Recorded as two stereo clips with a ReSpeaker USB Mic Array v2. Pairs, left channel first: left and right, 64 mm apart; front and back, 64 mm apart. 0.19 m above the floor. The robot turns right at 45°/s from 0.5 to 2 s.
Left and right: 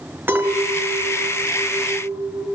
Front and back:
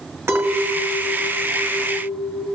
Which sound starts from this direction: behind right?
A clink, at 0.3 s.